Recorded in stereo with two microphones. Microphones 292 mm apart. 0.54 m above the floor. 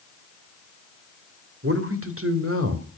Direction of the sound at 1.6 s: 50° right (ahead or behind).